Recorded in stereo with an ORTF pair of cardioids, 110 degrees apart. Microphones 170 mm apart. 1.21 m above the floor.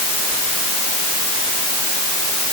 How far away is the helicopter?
I don't hear a helicopter.